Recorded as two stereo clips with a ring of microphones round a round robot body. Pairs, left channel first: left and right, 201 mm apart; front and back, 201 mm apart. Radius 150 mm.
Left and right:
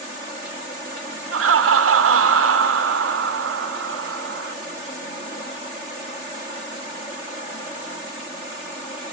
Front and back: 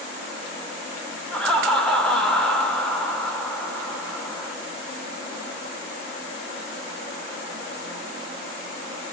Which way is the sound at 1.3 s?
90° right.